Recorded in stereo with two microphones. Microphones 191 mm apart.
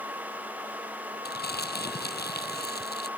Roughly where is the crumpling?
Left.